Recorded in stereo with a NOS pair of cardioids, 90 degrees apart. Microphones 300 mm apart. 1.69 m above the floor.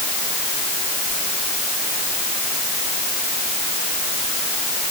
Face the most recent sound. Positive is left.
No sound to turn to.